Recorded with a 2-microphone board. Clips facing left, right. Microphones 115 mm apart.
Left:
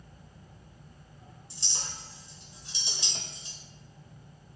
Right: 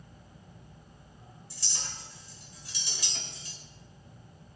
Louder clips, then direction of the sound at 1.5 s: Left 1 dB; 25° left (ahead or behind).